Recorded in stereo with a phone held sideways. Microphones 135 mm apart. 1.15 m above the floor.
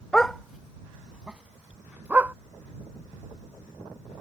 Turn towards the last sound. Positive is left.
turn(degrees=-15)  # may be behind; listen again after turning